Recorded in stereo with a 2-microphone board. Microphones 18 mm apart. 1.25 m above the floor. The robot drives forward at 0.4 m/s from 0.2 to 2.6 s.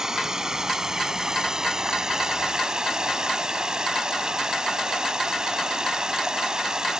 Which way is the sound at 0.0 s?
35° right (ahead or behind).